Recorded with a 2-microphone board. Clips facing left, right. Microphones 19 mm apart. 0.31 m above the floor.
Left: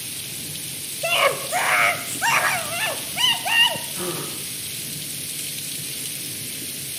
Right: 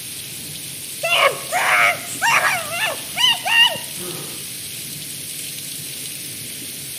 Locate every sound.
1.0 s a scream: 20° right (ahead or behind), 0.9 m
3.9 s a gasp: 55° left (ahead or behind), 8.5 m